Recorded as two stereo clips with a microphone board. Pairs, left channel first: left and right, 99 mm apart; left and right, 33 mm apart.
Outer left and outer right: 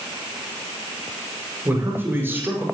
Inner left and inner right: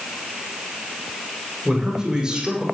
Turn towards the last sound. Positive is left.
turn(degrees=-20)  # may be behind; listen again after turning